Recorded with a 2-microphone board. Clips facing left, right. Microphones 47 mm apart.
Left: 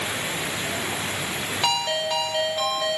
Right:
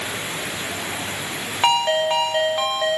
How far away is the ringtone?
About 1.6 m.